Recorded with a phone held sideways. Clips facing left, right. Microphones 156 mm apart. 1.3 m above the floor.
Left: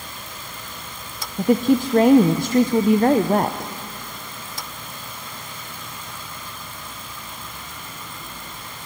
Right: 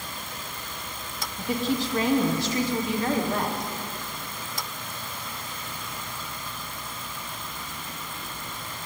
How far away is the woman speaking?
About 0.8 m.